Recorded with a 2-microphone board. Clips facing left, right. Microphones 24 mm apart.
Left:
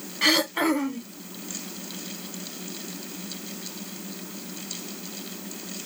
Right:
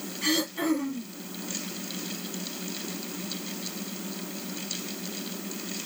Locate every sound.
0.2 s throat clearing: 70° left (ahead or behind), 1.1 m